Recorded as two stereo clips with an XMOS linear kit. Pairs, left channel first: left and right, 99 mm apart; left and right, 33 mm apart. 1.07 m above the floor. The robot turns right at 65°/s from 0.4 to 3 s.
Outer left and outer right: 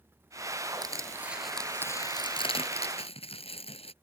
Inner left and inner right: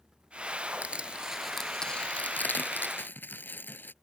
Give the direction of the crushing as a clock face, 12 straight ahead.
1 o'clock.